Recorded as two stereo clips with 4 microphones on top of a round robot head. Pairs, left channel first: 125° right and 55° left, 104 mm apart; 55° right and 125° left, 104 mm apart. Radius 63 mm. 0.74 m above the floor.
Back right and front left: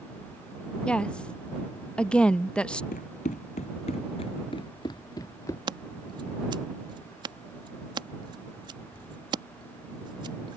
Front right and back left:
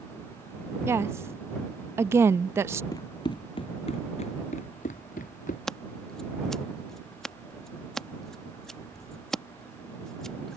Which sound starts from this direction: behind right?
Running footsteps, at 2.9 s.